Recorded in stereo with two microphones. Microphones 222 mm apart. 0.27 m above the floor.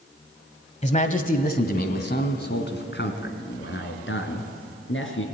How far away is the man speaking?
About 1.2 m.